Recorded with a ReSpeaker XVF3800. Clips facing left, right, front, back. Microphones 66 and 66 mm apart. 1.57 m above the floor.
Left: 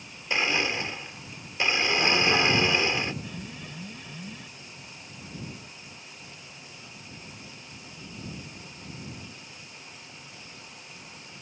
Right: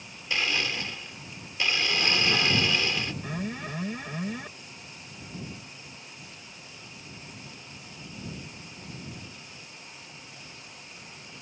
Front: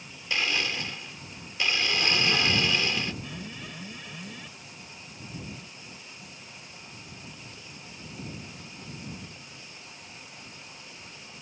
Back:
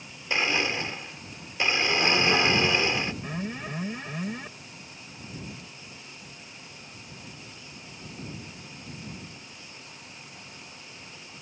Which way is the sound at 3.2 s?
130° right.